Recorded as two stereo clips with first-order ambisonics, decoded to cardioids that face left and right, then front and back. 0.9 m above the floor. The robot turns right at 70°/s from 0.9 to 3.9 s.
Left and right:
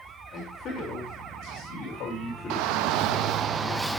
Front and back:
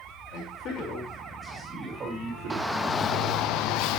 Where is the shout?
100° right, 0.6 m; by 4.0 s 5° right, 0.6 m.